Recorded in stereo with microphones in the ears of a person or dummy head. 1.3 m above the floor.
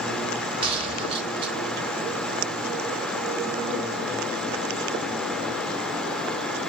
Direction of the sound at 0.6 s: 25° right (ahead or behind).